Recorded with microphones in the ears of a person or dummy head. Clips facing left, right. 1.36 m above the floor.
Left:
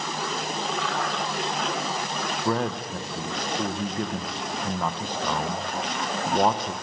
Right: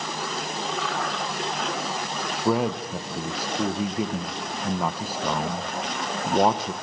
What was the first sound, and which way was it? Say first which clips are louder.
A man speaking: right 4 dB; 5° right (ahead or behind).